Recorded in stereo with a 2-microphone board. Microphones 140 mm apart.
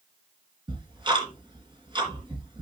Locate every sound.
0.7 s ticking: 35° right (ahead or behind), 3 m